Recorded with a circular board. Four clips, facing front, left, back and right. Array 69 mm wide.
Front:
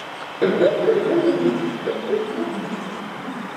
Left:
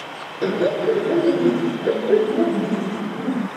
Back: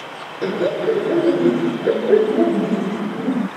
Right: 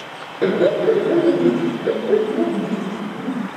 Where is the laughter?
40° right; by 3.5 s 170° left.